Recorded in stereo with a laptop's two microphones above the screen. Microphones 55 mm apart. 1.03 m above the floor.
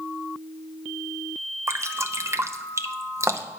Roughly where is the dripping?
Right.